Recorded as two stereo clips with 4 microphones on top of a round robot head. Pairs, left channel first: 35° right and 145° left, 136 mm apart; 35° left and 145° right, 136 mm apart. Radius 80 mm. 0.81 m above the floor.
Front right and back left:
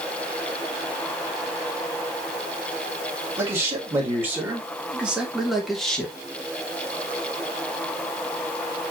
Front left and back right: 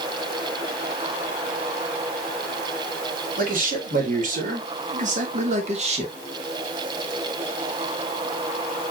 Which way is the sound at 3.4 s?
145° right.